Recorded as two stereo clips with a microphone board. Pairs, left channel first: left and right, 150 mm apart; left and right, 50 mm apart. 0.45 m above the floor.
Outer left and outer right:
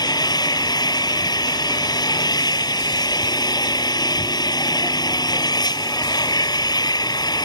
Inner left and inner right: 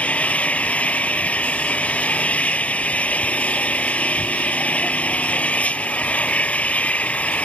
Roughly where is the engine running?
Left.